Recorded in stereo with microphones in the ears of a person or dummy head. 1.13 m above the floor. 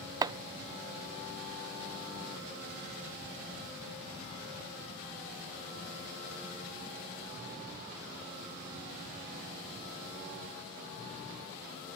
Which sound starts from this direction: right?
Chopping, at 0.2 s.